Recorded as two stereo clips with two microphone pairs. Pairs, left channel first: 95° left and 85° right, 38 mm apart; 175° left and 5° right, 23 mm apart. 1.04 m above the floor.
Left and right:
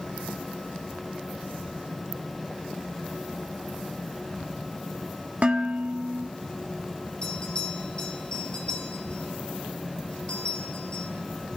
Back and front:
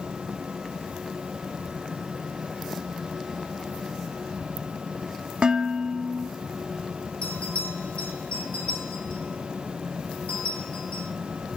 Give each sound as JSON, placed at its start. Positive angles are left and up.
{"t": 5.4, "sound": "dishes clattering", "azimuth_deg": -35, "distance_m": 1.4}
{"t": 7.2, "sound": "a bell", "azimuth_deg": 160, "distance_m": 4.0}